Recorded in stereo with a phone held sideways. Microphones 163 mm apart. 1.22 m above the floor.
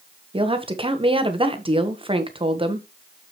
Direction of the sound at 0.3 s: 35° right (ahead or behind).